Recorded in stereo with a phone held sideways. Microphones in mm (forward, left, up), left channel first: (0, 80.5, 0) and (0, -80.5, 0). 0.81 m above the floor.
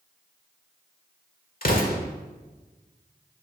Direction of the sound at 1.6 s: 70° left (ahead or behind).